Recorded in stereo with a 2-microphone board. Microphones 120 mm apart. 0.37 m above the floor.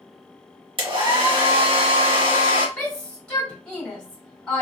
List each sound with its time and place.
0.8 s a hair dryer: 45° right (ahead or behind), 1.3 m
2.8 s a shout: 5° left (ahead or behind), 1.8 m